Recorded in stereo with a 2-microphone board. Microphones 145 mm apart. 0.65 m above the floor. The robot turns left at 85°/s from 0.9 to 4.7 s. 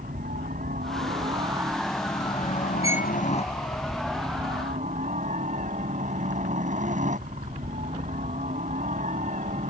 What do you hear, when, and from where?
0.0 s a helicopter: 100° right; by 9.7 s 60° right
2.8 s a violin: 25° right (ahead or behind); by 3.1 s centre (ahead or behind)